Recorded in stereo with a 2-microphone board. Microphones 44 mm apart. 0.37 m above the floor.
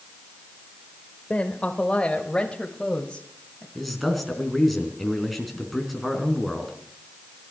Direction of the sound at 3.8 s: Centre (ahead or behind).